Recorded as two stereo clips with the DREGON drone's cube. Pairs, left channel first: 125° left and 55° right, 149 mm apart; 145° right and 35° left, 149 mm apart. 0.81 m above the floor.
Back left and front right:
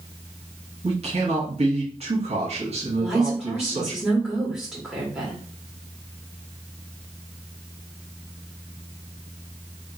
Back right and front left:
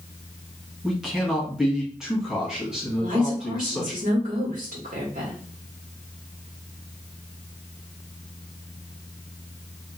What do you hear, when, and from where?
0.8 s a man speaking: 50° right, 1.3 m
3.0 s a woman speaking: 30° left, 1.6 m